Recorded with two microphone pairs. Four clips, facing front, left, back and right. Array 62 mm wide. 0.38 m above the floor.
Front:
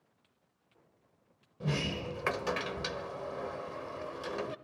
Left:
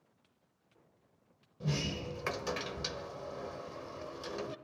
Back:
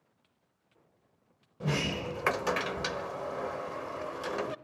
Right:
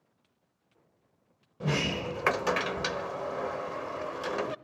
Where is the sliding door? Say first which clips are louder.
Right 7 dB, back 3 dB; 110° right, 0.7 m.